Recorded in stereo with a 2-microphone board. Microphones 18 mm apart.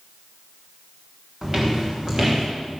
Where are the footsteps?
25° right (ahead or behind), 3.5 m; by 2.4 s 30° right (ahead or behind), 3 m.